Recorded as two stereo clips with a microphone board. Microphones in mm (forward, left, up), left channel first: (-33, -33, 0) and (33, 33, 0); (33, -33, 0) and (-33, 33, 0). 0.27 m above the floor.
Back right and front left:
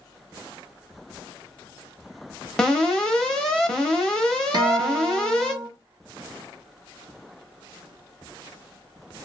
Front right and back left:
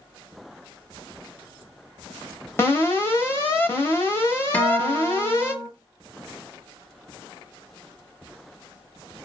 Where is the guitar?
20° left, 0.6 m.